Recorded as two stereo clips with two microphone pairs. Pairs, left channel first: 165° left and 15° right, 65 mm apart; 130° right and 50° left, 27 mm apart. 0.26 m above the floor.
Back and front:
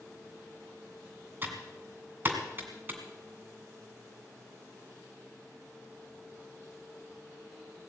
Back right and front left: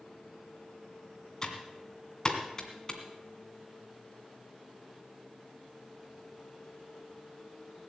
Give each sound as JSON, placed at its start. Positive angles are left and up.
{"t": 1.4, "sound": "typing on a keyboard", "azimuth_deg": -70, "distance_m": 1.9}